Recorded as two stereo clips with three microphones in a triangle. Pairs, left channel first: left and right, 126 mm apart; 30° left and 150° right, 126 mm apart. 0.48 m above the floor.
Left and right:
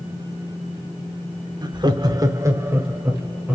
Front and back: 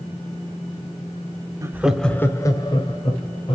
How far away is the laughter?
About 1.0 m.